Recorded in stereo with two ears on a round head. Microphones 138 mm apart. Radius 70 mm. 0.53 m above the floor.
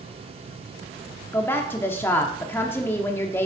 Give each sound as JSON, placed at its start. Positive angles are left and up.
{"t": 1.3, "sound": "a woman speaking", "side_deg": 15, "distance_m": 0.8}